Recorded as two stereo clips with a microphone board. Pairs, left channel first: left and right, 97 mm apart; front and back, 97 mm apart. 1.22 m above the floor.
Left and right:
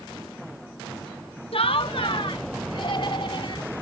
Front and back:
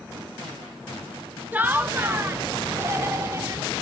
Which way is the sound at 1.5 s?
110° left.